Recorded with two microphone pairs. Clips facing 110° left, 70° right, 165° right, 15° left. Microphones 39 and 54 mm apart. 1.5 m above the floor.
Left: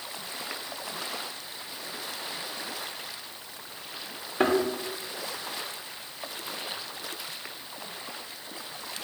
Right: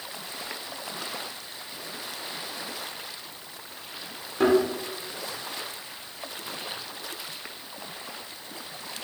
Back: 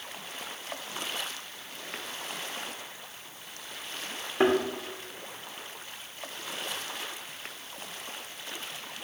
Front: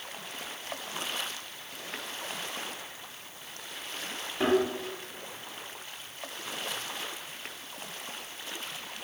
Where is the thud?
165° left, 1.7 m.